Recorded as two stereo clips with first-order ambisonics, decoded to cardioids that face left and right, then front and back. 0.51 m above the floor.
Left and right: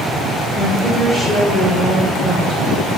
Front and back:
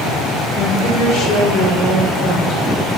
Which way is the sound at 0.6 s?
5° left.